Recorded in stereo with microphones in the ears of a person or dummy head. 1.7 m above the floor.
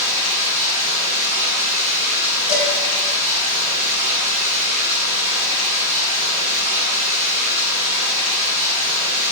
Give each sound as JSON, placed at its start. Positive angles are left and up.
{"t": 0.0, "sound": "running water", "side_deg": -70, "distance_m": 1.9}
{"t": 2.5, "sound": "dishes clattering", "side_deg": 30, "distance_m": 1.4}